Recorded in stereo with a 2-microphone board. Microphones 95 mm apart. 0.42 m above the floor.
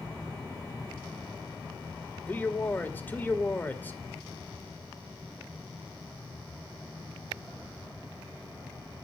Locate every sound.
2.3 s a man speaking: 20° left (ahead or behind), 1.7 m